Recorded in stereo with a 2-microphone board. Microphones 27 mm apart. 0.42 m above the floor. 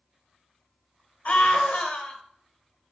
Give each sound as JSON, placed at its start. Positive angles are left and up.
{"t": 1.2, "sound": "a scream", "side_deg": 50, "distance_m": 1.4}